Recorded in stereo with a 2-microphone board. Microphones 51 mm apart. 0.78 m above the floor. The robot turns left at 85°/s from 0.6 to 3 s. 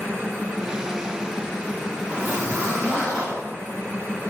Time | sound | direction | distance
2.1 | a zipper | 35° right | 1.8 m